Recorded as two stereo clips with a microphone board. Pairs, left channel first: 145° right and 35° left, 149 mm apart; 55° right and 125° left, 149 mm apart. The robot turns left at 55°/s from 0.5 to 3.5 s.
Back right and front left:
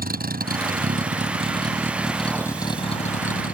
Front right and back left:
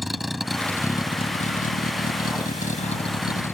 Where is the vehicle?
35° left; by 3.5 s 130° right.